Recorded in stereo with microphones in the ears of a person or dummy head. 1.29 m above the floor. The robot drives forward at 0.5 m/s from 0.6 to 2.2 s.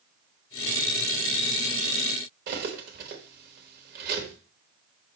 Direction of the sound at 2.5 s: 50° right (ahead or behind).